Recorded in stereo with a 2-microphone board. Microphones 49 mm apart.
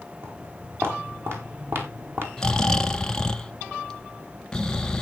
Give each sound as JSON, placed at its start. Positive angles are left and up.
{"t": 0.2, "sound": "footsteps", "side_deg": -55, "distance_m": 5.5}
{"t": 2.4, "sound": "snoring", "side_deg": 15, "distance_m": 0.6}